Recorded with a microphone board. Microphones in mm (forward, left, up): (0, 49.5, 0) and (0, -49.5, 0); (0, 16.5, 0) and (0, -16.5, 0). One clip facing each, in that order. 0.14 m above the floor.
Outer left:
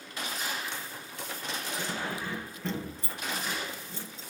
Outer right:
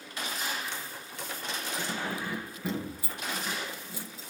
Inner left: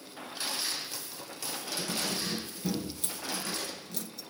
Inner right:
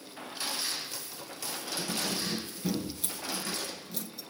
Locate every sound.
1.8 s keys jangling: 5° right (ahead or behind), 1.9 m